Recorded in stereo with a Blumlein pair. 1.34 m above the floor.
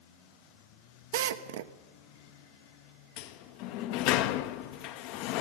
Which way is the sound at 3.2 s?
45° left.